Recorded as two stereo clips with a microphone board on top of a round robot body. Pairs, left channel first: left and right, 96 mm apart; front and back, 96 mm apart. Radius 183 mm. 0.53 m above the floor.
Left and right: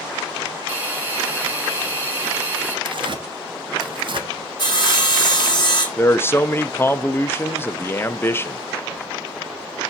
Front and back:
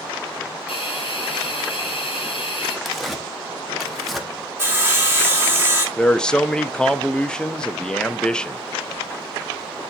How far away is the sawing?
About 2 m.